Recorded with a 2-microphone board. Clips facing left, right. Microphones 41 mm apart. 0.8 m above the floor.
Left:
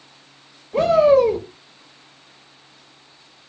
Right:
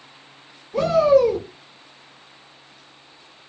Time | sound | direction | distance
0.7 | a shout | 40° left (ahead or behind) | 1.0 m